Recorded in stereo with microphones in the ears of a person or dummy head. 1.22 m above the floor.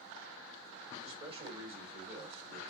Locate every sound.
1.0 s a man speaking: 25° right (ahead or behind), 4 m